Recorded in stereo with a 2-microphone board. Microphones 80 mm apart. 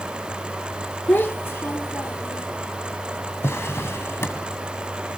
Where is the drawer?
35° left (ahead or behind), 1.8 m.